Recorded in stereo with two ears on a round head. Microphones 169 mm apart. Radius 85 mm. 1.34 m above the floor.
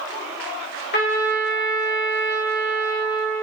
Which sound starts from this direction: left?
A trumpet, at 0.9 s.